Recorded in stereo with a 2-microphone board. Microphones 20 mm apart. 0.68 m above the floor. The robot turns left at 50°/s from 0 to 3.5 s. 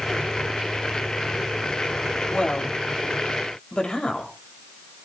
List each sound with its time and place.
2.3 s a woman speaking: 70° left (ahead or behind), 3 m; by 4.3 s 45° left (ahead or behind), 3 m